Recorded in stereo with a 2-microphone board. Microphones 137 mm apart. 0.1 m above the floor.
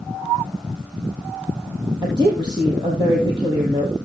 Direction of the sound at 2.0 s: 30° right (ahead or behind).